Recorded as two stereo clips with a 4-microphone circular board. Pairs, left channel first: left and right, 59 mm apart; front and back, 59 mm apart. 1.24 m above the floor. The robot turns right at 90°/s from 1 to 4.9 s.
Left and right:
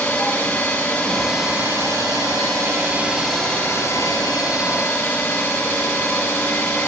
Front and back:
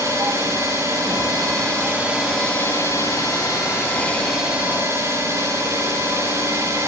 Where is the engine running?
150° left, 7 m; by 6.9 s 140° left, 7 m.